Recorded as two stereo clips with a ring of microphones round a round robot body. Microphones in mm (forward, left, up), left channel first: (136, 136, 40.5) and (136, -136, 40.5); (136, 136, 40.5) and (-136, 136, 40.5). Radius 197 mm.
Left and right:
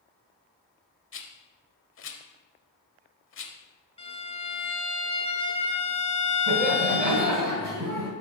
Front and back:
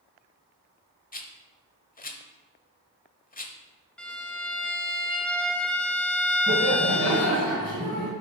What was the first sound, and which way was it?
A rattle, 55° left.